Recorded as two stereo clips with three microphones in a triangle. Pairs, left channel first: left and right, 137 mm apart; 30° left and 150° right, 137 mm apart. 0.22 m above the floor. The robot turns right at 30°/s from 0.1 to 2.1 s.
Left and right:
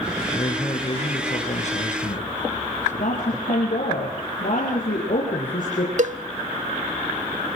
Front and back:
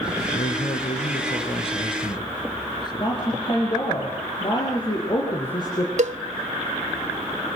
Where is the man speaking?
30° left, 3 m; by 3.5 s 85° left, 3 m.